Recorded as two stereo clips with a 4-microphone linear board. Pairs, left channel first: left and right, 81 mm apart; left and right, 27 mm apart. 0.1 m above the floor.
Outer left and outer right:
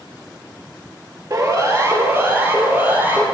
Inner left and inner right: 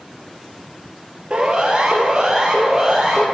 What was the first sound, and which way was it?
A siren, 40° right (ahead or behind).